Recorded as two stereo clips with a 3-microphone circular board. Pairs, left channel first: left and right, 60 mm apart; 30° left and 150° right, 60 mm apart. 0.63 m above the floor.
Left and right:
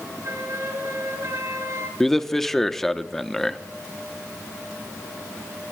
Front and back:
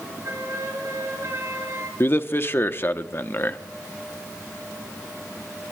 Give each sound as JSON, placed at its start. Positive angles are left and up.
{"t": 0.2, "sound": "a flute", "azimuth_deg": -120, "distance_m": 3.5}
{"t": 2.0, "sound": "a man speaking", "azimuth_deg": 10, "distance_m": 0.8}